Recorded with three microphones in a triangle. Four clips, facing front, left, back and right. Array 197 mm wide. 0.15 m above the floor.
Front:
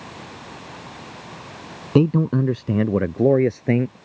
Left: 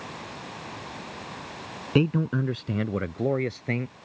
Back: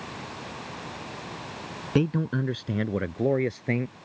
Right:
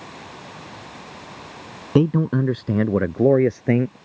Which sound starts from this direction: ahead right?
A man speaking, at 1.9 s.